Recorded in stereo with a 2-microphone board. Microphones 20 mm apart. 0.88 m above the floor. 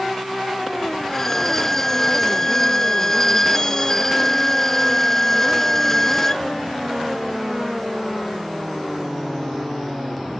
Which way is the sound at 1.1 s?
20° left (ahead or behind).